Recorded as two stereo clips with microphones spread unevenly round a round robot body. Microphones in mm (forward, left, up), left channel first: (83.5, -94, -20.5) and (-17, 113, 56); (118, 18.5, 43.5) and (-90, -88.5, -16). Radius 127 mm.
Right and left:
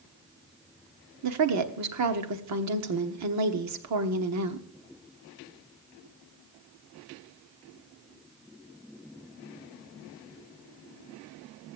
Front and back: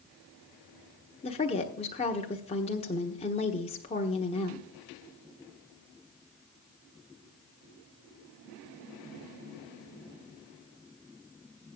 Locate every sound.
1.2 s a woman speaking: 100° left, 1.2 m